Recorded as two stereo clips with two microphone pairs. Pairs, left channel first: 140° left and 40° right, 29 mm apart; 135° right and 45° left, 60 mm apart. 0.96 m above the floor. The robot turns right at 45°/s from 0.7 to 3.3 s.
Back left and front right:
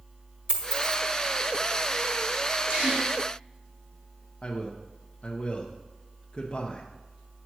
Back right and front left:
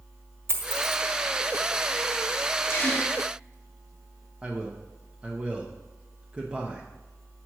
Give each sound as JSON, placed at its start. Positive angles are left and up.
{"t": 0.5, "sound": "a dropped coin", "azimuth_deg": 5, "distance_m": 1.2}
{"t": 2.7, "sound": "a gasp", "azimuth_deg": -85, "distance_m": 1.3}
{"t": 4.4, "sound": "a man speaking", "azimuth_deg": 105, "distance_m": 0.8}